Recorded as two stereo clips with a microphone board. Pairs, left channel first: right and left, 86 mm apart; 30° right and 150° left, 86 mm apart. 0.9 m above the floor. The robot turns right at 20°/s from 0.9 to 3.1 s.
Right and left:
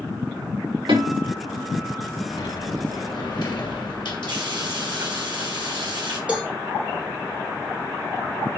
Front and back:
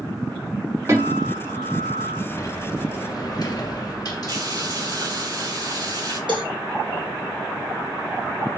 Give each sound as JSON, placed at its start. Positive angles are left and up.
{"t": 0.9, "sound": "a guitar", "azimuth_deg": 95, "distance_m": 6.0}
{"t": 2.3, "sound": "a sliding door", "azimuth_deg": -80, "distance_m": 1.8}
{"t": 4.3, "sound": "frying", "azimuth_deg": 115, "distance_m": 5.0}
{"t": 6.3, "sound": "a cowbell", "azimuth_deg": 165, "distance_m": 2.0}